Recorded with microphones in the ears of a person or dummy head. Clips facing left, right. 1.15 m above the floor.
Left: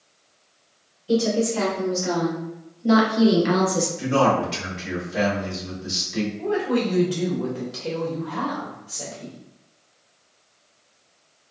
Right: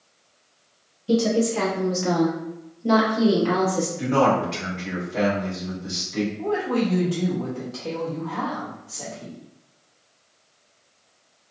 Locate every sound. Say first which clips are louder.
1.1 s a woman speaking: right 1 dB; 55° right (ahead or behind), 1.0 m; by 3.9 s 35° left (ahead or behind), 0.9 m
4.0 s a man speaking: even; 5° left (ahead or behind), 1.5 m
6.4 s a woman speaking: left 2 dB; 20° left (ahead or behind), 1.2 m